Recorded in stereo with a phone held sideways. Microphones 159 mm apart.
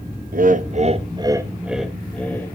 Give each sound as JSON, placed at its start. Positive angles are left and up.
{"t": 0.3, "sound": "laughter", "side_deg": -65, "distance_m": 0.8}